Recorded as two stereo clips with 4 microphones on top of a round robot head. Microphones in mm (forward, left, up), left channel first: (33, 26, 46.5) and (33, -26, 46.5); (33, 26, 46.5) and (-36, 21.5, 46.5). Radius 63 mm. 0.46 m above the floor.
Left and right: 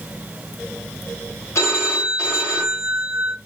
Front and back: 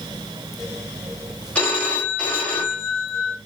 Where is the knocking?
I don't hear knocking.